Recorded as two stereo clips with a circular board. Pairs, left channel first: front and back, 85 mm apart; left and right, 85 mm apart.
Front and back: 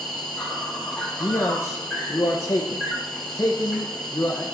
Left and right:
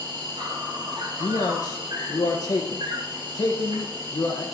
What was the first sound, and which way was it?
An insect, 85° right.